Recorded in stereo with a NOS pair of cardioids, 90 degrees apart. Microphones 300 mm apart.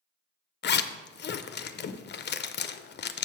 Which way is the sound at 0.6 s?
35° left.